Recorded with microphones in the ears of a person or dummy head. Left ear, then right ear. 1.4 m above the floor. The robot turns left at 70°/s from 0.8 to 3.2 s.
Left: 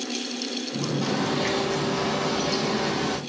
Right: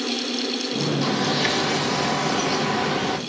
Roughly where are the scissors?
No scissors in this recording.